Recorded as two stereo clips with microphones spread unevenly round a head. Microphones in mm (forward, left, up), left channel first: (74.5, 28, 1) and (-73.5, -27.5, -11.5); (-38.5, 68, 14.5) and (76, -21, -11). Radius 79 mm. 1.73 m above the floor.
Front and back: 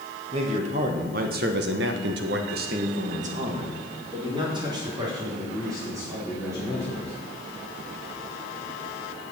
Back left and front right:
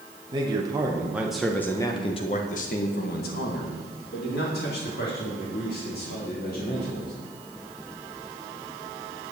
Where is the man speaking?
105° right, 1.9 m; by 7.1 s 125° left, 5 m.